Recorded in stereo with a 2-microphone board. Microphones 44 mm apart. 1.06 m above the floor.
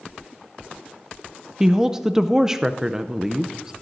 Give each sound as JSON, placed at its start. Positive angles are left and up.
{"t": 1.6, "sound": "a woman speaking", "side_deg": -15, "distance_m": 0.5}